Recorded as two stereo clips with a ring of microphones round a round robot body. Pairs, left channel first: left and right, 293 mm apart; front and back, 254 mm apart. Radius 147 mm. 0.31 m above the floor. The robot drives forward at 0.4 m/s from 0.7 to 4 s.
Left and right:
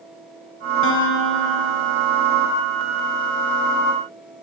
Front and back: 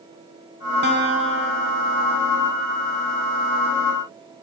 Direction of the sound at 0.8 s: 135° left.